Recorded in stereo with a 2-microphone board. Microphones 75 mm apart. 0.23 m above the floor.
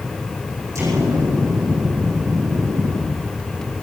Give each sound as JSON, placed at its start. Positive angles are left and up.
{"t": 0.8, "sound": "an explosion", "side_deg": -45, "distance_m": 9.5}